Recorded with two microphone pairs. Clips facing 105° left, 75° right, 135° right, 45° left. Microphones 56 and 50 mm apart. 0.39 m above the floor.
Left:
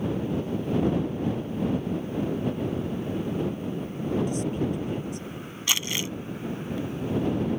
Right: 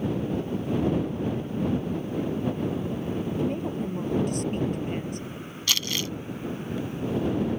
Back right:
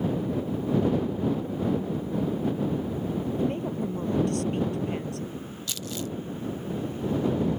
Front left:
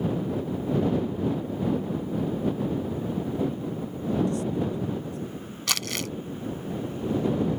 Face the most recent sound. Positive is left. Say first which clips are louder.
# even, front left 5 dB
turn(degrees=35)